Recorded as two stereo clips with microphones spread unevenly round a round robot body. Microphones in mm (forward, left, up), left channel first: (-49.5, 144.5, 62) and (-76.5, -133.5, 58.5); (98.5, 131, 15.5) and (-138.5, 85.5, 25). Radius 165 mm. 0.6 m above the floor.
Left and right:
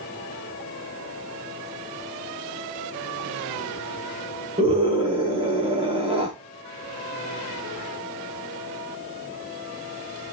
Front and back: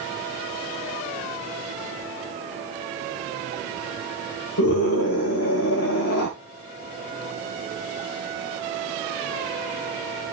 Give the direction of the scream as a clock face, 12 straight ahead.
1 o'clock.